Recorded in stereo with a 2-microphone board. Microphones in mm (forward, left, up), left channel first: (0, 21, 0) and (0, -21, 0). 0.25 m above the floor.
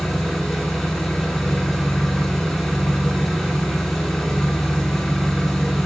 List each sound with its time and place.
0.0 s an engine running: 5° left (ahead or behind), 1.1 m